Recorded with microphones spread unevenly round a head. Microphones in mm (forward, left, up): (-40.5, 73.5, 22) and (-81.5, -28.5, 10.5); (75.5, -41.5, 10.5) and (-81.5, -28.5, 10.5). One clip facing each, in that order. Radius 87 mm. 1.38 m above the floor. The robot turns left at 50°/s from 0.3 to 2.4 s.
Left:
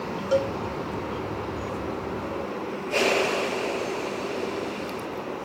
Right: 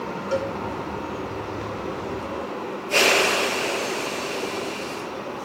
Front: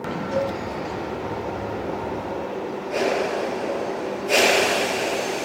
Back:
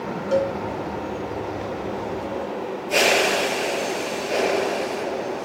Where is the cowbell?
140° left, 3.5 m; by 0.5 s 130° left, 3.5 m.